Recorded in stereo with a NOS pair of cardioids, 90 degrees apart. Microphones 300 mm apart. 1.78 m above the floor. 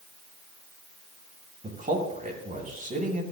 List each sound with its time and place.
1.6 s a man speaking: 25° right, 8.5 m